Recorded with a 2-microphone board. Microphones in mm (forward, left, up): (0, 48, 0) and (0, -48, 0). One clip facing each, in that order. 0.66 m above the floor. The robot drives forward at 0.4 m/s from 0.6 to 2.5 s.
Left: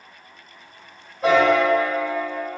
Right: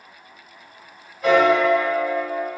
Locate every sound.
1.2 s a piano: 35° left (ahead or behind), 1.8 m; by 2.5 s 30° left (ahead or behind), 2 m